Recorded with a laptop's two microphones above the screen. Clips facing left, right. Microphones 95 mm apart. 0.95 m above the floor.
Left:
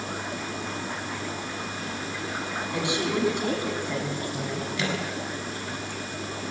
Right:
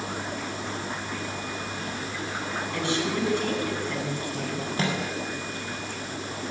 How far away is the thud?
No thud in this recording.